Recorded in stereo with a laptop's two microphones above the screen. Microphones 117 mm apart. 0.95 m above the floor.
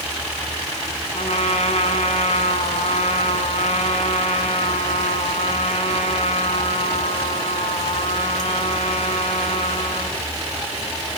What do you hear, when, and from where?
1.1 s a trumpet: 70° left (ahead or behind), 2.5 m